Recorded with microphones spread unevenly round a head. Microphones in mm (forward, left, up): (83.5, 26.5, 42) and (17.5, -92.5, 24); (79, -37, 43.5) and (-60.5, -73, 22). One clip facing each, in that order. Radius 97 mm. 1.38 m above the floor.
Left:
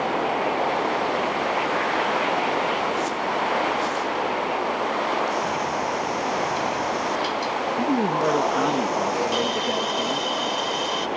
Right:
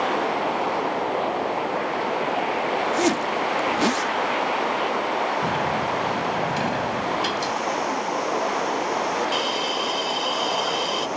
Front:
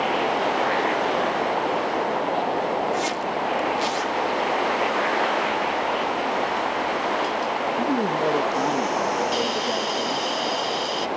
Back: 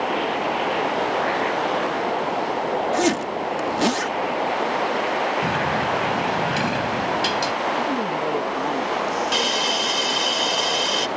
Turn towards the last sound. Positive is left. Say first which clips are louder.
# left 2 dB, even
turn(degrees=155)